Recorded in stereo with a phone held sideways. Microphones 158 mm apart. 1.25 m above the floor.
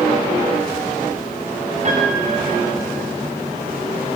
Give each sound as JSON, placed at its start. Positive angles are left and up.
{"t": 1.9, "sound": "a piano", "side_deg": -45, "distance_m": 6.0}